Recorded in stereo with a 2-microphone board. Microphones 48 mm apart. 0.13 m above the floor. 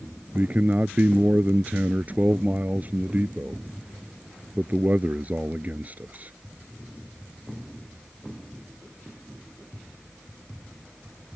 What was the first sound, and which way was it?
A man speaking, 35° right (ahead or behind).